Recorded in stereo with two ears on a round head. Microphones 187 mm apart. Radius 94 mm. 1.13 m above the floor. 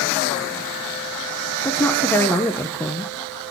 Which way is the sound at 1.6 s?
10° left (ahead or behind).